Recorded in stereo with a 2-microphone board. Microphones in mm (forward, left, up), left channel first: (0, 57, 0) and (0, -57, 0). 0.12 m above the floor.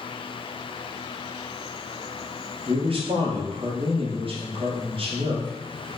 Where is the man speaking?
55° right (ahead or behind), 2.5 m.